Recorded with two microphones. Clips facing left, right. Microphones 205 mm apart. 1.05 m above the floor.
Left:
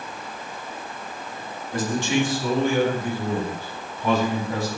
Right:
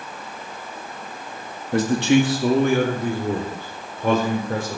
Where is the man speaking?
70° right (ahead or behind), 2 m; by 4.8 s 55° right (ahead or behind), 5.5 m.